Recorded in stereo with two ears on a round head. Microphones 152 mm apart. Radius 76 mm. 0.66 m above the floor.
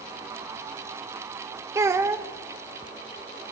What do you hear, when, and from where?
1.8 s a child speaking: 15° right (ahead or behind), 0.6 m